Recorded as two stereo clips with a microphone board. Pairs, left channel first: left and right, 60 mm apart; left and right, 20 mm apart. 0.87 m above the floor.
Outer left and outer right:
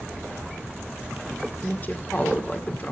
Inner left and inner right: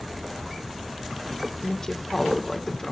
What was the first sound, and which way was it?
A woman speaking, 30° left (ahead or behind).